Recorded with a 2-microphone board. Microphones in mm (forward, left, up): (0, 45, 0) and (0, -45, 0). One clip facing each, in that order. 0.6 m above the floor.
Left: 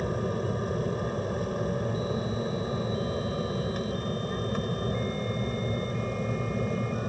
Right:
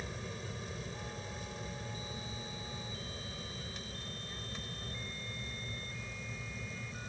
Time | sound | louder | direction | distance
0.0 | an aircraft | left 15 dB | 50° left (ahead or behind) | ?